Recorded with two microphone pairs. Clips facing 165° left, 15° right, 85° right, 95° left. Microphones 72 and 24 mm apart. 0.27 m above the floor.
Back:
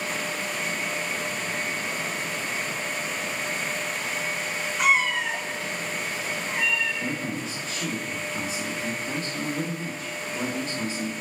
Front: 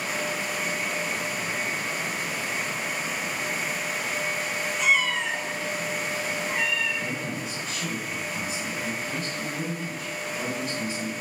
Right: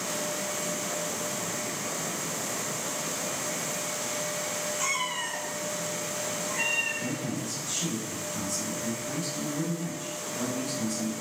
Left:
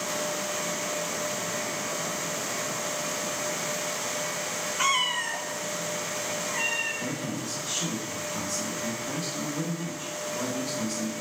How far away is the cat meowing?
About 0.5 m.